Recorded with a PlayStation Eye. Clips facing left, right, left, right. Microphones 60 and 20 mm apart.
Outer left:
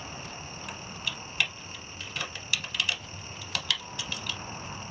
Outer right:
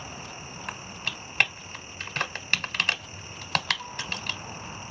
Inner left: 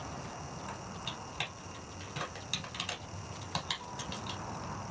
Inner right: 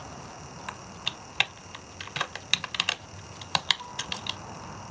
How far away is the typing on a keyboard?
About 0.6 m.